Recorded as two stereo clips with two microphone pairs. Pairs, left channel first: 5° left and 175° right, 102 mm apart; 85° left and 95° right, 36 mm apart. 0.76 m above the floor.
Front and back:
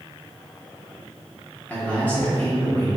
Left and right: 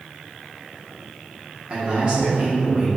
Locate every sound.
1.7 s a man speaking: 55° right, 1.3 m